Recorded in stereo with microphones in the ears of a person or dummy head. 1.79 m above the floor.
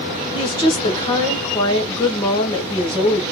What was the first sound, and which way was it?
A woman speaking, 20° left (ahead or behind).